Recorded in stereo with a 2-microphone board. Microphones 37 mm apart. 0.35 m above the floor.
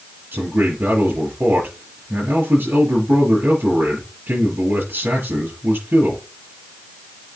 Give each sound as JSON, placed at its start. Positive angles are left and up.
{"t": 0.3, "sound": "a man speaking", "side_deg": -80, "distance_m": 6.0}